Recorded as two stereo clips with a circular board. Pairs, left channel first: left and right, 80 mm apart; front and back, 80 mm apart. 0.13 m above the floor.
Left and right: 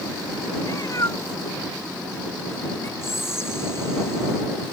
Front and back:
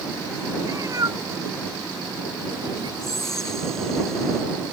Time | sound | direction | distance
0.6 | a cat meowing | 135° left | ?
3.0 | whispering | 80° left | ?